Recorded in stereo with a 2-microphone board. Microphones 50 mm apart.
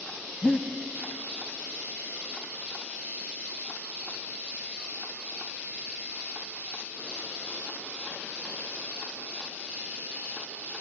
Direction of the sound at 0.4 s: 25° left (ahead or behind).